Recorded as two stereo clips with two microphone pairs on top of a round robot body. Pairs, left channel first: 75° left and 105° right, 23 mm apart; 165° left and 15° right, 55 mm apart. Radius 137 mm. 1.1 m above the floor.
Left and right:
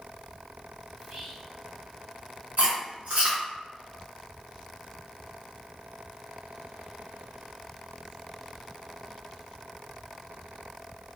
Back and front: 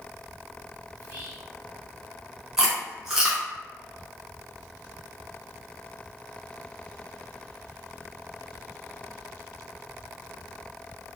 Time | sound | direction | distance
1.0 | whispering | 85° right | 1.0 m
2.6 | chewing | 95° right | 0.7 m